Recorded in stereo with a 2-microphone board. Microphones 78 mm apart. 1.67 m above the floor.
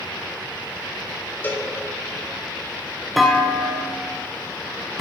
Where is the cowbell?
25° left (ahead or behind), 3 m.